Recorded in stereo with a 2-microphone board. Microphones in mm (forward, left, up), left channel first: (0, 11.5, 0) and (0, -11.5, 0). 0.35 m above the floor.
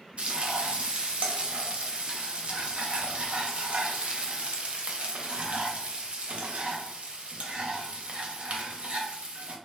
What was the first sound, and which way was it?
Frying, 55° right (ahead or behind).